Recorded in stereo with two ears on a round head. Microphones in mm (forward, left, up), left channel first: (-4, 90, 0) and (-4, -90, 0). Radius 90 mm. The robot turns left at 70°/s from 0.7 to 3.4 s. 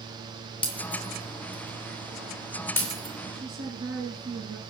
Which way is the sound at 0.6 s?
25° left (ahead or behind).